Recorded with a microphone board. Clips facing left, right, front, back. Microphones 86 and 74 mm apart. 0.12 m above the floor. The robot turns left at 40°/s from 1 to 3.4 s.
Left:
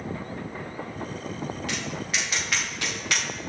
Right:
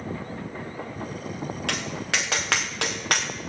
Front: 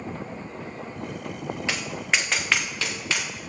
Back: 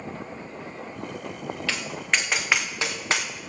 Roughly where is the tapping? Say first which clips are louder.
Right 2 dB, even; right.